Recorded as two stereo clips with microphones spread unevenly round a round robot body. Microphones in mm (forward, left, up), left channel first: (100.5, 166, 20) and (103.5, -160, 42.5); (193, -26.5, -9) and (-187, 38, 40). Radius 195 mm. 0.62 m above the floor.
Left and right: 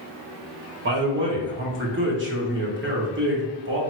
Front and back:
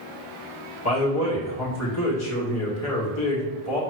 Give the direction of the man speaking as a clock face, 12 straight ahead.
1 o'clock.